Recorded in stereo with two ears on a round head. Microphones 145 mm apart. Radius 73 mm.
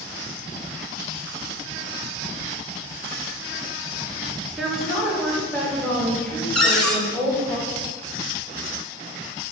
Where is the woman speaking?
5° right (ahead or behind), 1.7 m; by 7.5 s 15° left (ahead or behind), 4.5 m.